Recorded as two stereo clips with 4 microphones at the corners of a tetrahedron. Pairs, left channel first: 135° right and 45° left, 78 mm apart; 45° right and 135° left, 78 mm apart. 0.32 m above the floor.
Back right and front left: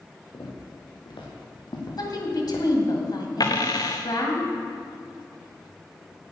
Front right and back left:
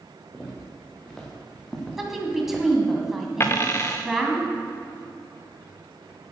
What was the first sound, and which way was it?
Footsteps, 125° right.